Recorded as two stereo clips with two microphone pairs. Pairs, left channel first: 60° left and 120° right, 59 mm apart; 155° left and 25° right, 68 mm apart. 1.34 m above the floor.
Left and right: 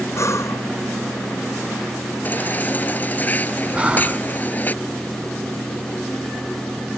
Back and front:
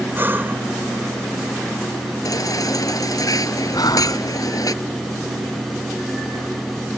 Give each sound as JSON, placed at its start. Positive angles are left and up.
{"t": 0.1, "sound": "breathing", "azimuth_deg": 30}
{"t": 2.2, "sound": "a baby crying", "azimuth_deg": 125}
{"t": 3.7, "sound": "breathing", "azimuth_deg": 170}